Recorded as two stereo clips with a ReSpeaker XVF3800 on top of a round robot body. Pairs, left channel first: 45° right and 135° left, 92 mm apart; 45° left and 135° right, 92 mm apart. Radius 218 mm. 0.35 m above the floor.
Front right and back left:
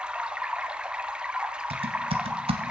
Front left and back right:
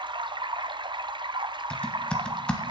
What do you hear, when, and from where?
0.0 s running water: 145° right, 0.8 m
1.7 s typing on a keyboard: 125° left, 0.9 m